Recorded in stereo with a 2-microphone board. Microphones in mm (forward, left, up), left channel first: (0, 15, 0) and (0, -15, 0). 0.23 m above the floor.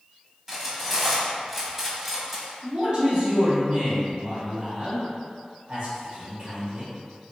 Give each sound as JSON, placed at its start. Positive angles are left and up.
{"t": 0.5, "sound": "cutlery clinking", "side_deg": -10, "distance_m": 0.8}
{"t": 2.6, "sound": "a man speaking", "side_deg": -35, "distance_m": 1.2}